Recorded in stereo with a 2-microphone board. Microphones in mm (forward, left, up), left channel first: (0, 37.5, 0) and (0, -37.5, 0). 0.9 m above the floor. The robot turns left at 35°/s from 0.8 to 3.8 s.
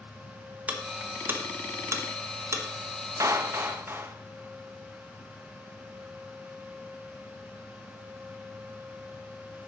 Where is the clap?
45° right (ahead or behind), 0.7 m; by 4.2 s 30° right (ahead or behind), 0.7 m.